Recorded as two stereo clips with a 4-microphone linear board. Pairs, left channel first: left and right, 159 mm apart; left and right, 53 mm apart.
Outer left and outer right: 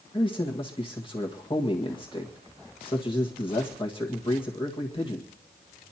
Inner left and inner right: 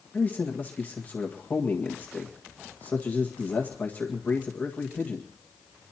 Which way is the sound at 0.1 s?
30° left (ahead or behind).